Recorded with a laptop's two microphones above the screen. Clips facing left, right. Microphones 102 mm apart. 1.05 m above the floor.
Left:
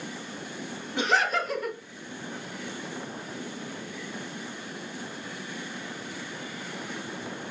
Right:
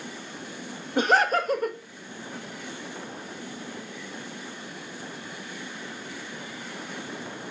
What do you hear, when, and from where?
1.0 s laughter: 45° right (ahead or behind), 0.6 m